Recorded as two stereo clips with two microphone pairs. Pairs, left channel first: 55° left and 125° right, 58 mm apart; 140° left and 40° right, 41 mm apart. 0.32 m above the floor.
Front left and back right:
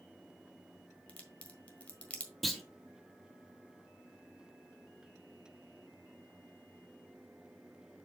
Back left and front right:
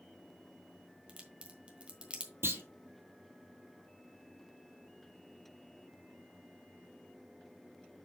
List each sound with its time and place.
1.1 s a crack: straight ahead, 1.5 m
2.4 s a clunk: 35° right, 1.4 m